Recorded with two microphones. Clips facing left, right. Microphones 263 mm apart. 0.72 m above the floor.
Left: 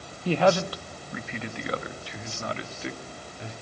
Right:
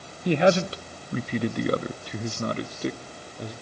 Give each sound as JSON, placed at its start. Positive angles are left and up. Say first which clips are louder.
{"t": 0.2, "sound": "a man speaking", "louder": "right 2 dB", "side_deg": -15, "distance_m": 0.8}